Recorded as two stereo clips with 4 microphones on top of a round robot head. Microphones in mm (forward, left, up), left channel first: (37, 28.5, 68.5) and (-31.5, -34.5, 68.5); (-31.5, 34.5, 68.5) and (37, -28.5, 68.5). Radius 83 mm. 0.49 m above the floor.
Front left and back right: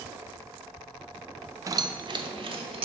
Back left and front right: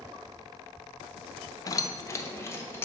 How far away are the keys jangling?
About 0.5 m.